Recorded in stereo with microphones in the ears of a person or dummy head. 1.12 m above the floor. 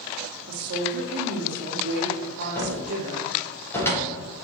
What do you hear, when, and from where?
0.5 s a woman speaking: 60° right (ahead or behind), 2 m
2.5 s a cupboard door: 10° left (ahead or behind), 3 m